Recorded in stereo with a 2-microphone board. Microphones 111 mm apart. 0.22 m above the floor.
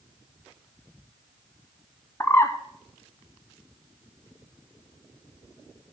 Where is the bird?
25° left (ahead or behind), 0.9 m.